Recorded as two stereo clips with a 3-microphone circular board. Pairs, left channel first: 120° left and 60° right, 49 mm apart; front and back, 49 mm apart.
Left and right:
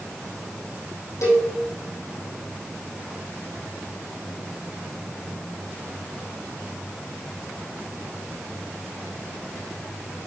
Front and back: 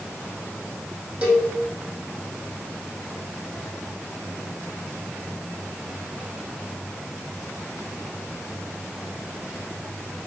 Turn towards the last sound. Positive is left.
turn(degrees=115)